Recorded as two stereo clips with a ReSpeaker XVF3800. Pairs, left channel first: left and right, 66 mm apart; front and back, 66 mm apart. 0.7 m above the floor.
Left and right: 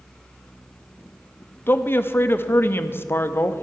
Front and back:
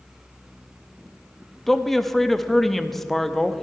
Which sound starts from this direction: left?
A man speaking, at 1.7 s.